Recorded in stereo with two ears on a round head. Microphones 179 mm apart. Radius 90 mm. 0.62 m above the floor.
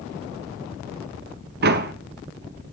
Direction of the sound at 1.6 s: 50° right (ahead or behind).